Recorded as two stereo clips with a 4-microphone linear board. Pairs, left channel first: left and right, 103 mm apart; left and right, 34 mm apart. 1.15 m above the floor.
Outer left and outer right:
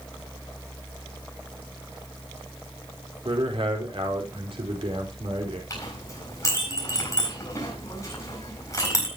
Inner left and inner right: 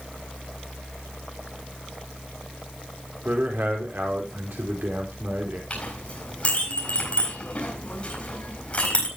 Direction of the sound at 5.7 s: 30° left (ahead or behind).